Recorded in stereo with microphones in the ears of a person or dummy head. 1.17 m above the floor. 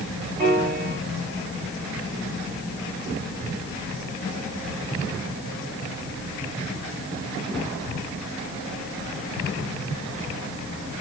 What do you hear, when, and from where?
0.4 s a piano: 45° right (ahead or behind), 3 m